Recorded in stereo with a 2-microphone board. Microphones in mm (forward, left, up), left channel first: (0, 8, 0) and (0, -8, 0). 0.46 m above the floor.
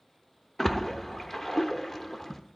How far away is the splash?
About 0.8 m.